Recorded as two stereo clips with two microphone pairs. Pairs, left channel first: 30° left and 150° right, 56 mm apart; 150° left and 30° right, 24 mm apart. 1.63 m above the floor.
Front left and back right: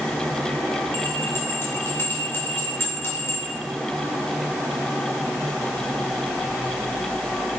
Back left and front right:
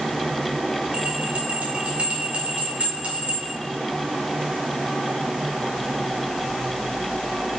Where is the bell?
10° right, 2 m.